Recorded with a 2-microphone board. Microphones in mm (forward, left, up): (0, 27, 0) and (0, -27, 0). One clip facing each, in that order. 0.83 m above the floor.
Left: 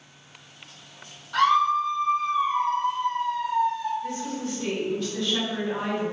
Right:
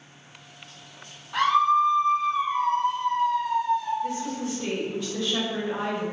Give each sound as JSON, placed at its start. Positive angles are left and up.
{"t": 1.3, "sound": "a scream", "side_deg": -20, "distance_m": 1.4}
{"t": 4.0, "sound": "a woman speaking", "side_deg": -15, "distance_m": 2.0}